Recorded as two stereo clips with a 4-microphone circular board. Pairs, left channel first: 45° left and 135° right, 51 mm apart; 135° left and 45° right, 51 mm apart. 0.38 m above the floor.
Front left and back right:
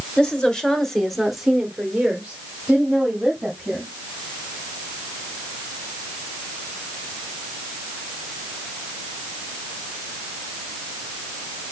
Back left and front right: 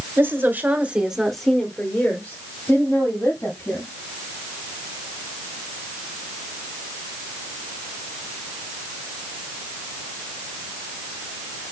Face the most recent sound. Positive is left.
turn(degrees=155)